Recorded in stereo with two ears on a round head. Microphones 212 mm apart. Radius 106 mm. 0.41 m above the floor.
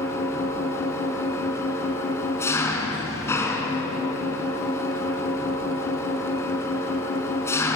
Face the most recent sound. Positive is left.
turn(degrees=10)  # may be behind; listen again after turning